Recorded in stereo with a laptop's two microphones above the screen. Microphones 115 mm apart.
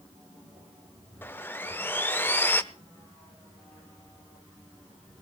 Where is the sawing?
20° left (ahead or behind), 0.8 m.